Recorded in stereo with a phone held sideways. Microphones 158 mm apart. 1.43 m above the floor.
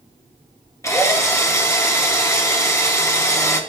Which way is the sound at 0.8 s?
20° left (ahead or behind).